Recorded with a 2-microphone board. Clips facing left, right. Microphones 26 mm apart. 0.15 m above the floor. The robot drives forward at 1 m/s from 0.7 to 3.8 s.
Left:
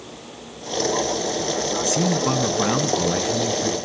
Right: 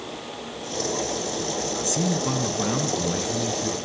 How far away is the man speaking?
About 1.8 m.